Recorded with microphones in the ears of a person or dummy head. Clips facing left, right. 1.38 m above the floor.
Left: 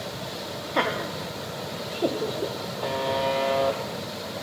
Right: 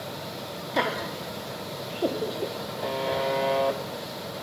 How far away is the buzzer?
About 0.9 m.